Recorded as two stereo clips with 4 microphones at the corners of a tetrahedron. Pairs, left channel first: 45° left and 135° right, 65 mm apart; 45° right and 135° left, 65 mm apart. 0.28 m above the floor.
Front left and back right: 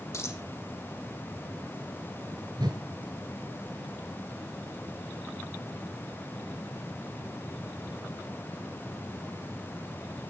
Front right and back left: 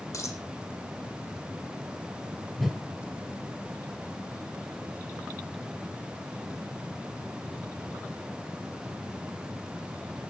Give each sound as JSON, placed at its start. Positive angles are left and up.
{"t": 0.1, "sound": "a dropped coin", "azimuth_deg": 0, "distance_m": 4.5}
{"t": 2.6, "sound": "a whoosh", "azimuth_deg": -135, "distance_m": 4.0}